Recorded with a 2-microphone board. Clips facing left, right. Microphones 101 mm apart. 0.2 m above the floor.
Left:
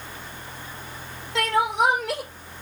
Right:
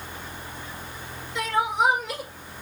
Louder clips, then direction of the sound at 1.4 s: Left 2 dB; 70° left (ahead or behind).